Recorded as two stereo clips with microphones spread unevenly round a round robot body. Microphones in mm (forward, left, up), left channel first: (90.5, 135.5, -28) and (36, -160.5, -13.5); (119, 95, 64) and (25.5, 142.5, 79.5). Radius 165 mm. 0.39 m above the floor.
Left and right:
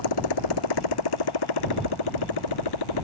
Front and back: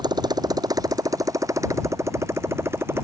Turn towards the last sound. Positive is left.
turn(degrees=85)